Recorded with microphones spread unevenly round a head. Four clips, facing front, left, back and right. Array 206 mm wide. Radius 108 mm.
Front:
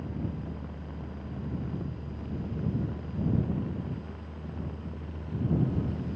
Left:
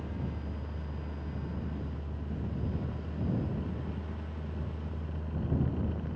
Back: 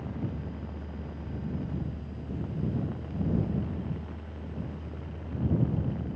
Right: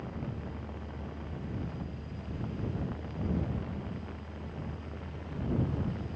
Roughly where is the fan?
Ahead left.